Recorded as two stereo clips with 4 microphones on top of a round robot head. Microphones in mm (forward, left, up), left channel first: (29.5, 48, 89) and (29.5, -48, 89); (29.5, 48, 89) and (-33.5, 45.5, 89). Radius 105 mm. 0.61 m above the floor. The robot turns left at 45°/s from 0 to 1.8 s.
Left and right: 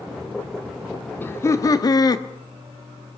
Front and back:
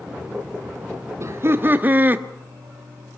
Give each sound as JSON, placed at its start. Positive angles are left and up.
{"t": 1.2, "sound": "laughter", "azimuth_deg": 155, "distance_m": 1.1}